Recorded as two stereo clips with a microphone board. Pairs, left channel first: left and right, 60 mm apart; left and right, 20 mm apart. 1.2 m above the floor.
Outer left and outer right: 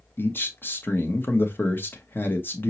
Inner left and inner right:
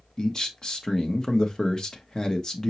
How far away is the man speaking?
About 0.9 m.